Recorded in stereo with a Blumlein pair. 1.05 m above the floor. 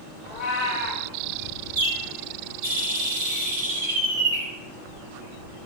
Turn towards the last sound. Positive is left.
turn(degrees=-55)